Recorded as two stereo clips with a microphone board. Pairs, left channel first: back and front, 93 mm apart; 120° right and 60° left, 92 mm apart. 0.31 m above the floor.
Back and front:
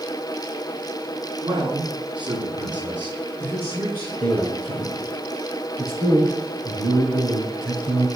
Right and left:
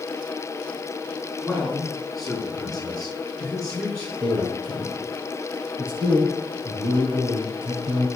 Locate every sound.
1.4 s a man speaking: 20° right, 4 m; by 4.1 s 40° right, 5 m
4.2 s a man speaking: 45° left, 3.5 m